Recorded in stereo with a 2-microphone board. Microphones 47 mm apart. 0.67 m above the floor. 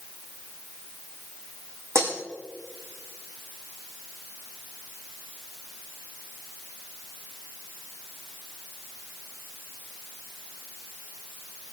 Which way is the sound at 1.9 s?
80° right.